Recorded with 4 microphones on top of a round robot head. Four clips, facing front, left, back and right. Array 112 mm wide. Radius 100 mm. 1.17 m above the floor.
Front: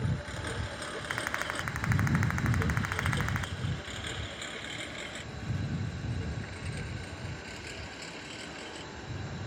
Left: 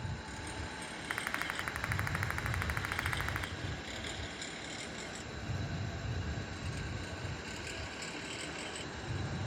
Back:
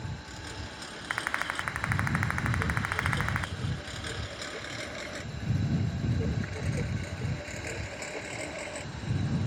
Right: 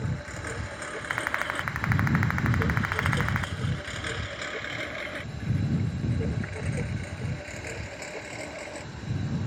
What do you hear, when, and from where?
0.0 s a lawn mower: 55° right; by 9.5 s 135° right
1.1 s a rattle: 110° right